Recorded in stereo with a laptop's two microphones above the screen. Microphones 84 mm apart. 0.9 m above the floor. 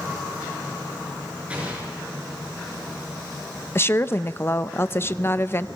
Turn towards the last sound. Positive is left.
turn(degrees=30)  # may be behind; listen again after turning